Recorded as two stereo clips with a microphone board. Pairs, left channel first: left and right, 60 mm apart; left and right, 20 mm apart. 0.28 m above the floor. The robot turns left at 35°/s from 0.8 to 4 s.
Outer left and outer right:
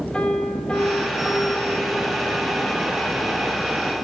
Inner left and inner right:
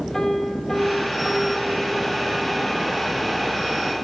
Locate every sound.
0.1 s a piano: 20° left, 9 m; by 2.7 s 45° right, 9 m